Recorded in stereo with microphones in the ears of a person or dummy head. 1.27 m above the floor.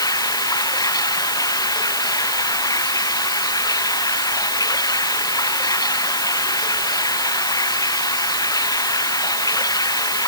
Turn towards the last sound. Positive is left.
turn(degrees=20)  # may be behind; listen again after turning